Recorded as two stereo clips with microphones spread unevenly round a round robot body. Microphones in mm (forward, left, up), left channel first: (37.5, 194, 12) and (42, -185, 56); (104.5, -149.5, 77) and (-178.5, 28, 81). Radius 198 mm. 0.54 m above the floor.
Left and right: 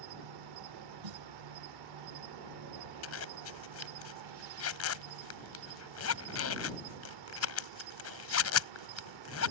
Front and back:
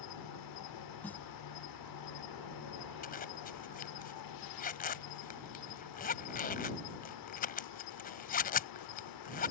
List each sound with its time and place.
0.0 s an insect: 55° right
1.0 s a snare drum: 120° right
3.0 s a zipper: 35° left